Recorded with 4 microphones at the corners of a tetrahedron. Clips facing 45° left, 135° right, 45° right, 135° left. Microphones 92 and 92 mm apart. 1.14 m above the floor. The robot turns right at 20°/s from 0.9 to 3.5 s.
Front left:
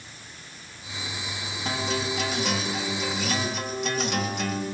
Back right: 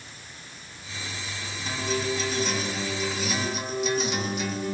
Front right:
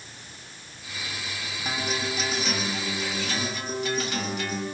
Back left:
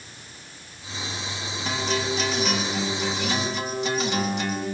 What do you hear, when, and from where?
1.6 s a guitar: 30° left, 7 m; by 4.7 s 65° left, 7 m